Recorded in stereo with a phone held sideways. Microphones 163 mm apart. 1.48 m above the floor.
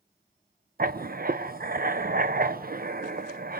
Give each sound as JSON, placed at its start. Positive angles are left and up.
{"t": 0.8, "sound": "writing", "side_deg": -55, "distance_m": 0.7}